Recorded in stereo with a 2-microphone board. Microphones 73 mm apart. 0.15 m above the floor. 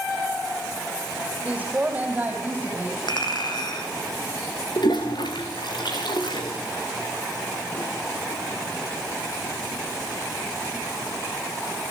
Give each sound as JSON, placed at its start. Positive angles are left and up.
{"t": 1.4, "sound": "a woman speaking", "side_deg": -15, "distance_m": 6.5}
{"t": 3.1, "sound": "a clink", "side_deg": 75, "distance_m": 3.5}
{"t": 4.8, "sound": "a toilet flushing", "side_deg": 75, "distance_m": 4.0}